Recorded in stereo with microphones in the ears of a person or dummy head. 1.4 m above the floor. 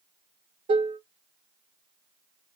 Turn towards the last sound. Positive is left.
turn(degrees=-30)  # may be behind; listen again after turning